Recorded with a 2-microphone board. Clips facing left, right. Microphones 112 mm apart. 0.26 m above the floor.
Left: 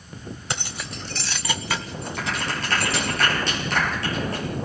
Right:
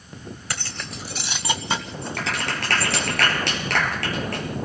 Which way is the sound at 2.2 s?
70° right (ahead or behind).